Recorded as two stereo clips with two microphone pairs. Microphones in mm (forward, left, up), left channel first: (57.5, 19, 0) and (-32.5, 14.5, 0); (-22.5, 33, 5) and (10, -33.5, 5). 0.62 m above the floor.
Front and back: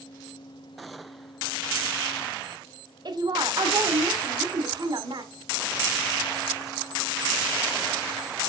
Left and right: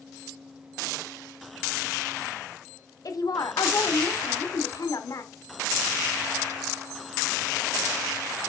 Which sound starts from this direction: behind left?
A woman speaking, at 3.0 s.